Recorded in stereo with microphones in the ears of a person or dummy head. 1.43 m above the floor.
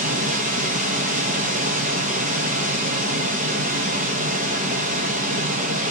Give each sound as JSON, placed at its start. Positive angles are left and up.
{"t": 0.0, "sound": "a machine running", "side_deg": -40, "distance_m": 0.8}